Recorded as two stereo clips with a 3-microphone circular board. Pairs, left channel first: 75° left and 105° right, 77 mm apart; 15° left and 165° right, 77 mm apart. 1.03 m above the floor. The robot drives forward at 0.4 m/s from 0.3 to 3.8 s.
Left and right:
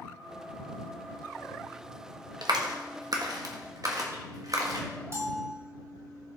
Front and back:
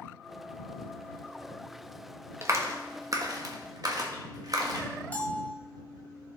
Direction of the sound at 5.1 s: 50° right.